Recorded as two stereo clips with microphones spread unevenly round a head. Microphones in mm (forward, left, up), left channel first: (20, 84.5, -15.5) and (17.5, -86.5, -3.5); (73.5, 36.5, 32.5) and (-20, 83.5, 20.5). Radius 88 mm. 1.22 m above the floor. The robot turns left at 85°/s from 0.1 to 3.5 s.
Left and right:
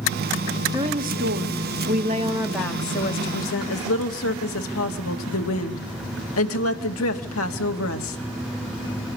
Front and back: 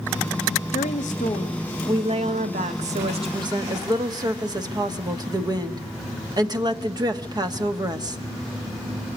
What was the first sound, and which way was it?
A woman speaking, 20° right.